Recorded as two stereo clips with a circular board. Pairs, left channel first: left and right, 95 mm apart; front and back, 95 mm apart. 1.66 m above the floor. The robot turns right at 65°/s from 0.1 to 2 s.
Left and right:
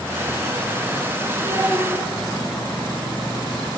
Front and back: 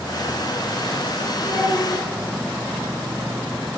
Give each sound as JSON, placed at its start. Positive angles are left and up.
{"t": 1.4, "sound": "a child speaking", "azimuth_deg": -120, "distance_m": 1.2}